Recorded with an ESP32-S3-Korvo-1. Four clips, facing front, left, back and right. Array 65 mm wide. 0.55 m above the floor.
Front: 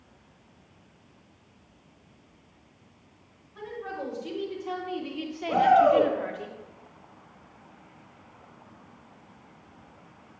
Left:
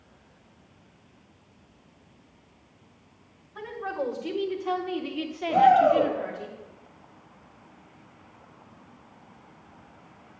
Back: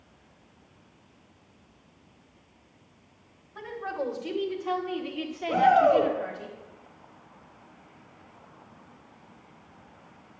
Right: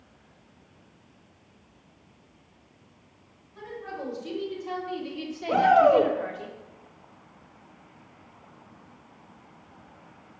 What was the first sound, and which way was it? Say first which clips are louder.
A woman speaking: left 5 dB, back 3 dB; 120° left.